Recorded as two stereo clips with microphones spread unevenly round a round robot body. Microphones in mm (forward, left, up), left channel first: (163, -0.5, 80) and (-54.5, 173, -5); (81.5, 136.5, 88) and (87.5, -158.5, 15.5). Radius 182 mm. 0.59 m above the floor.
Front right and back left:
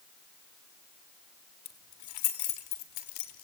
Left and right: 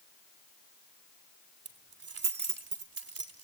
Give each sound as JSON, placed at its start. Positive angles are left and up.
{"t": 1.6, "sound": "keys jangling", "azimuth_deg": -50, "distance_m": 3.0}